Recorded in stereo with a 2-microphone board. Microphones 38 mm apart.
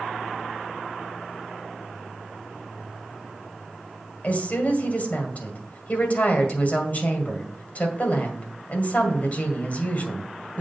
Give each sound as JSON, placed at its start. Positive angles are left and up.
{"t": 4.2, "sound": "a woman speaking", "side_deg": 45, "distance_m": 2.0}